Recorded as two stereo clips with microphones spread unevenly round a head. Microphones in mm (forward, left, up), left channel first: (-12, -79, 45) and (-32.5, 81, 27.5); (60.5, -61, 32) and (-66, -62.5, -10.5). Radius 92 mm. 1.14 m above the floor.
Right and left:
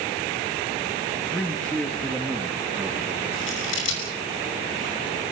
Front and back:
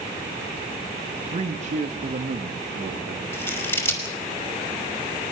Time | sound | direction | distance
1.3 | a man speaking | 160° right | 2 m
3.3 | scissors | 70° right | 5.5 m